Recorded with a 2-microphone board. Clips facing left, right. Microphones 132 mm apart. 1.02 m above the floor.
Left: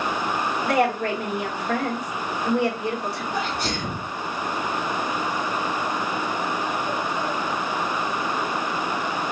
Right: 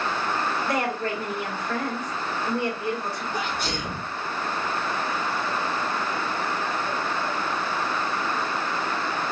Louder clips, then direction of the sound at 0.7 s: Left 5 dB; 70° left (ahead or behind).